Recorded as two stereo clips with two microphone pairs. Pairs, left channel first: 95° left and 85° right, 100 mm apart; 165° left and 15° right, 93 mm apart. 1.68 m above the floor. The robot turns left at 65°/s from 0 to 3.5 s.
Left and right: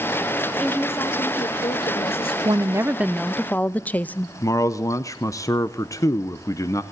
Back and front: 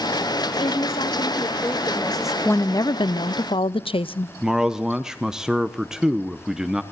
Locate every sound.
0.6 s a woman speaking: straight behind, 1.3 m; by 2.4 s 65° left, 1.3 m
2.5 s a woman speaking: 125° right, 0.5 m; by 4.3 s 165° left, 0.5 m
4.4 s a man speaking: 65° left, 0.7 m